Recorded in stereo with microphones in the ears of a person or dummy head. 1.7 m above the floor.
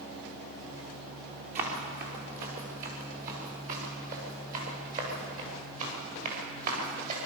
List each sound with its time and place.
1.6 s running footsteps: 45° right (ahead or behind), 6 m